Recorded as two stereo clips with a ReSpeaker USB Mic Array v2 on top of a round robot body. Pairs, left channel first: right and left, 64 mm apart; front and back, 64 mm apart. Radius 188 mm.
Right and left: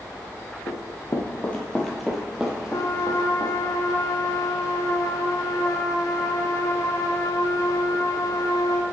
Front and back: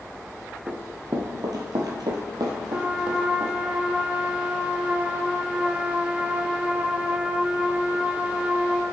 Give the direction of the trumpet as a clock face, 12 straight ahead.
4 o'clock.